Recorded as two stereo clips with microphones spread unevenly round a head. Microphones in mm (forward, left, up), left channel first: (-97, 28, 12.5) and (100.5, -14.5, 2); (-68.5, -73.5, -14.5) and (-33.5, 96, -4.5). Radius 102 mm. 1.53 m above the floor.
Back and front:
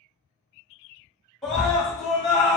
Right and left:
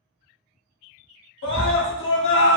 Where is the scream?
105° right, 0.9 m.